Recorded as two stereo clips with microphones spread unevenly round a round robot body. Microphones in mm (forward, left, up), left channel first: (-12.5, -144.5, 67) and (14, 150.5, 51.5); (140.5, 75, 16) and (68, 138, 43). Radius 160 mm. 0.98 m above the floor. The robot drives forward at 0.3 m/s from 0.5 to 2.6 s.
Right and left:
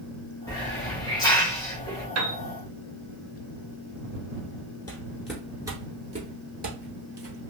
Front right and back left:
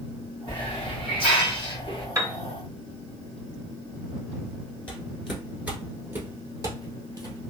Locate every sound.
0.5 s a hiss: 175° right, 1.2 m
2.1 s a piano: 85° left, 1.2 m; by 2.4 s 90° left, 1.2 m
4.9 s footsteps: 145° right, 0.9 m; by 7.5 s 135° left, 1.7 m